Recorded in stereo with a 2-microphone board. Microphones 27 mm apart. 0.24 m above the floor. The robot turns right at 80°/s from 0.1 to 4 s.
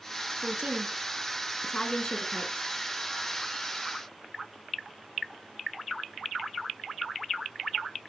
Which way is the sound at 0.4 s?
65° right (ahead or behind).